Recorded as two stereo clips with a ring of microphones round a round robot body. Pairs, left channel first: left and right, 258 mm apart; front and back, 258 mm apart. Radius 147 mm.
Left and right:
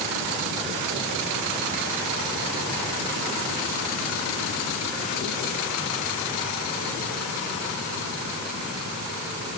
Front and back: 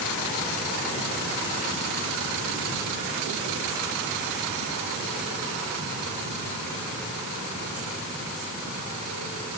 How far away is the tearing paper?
No tearing paper in this recording.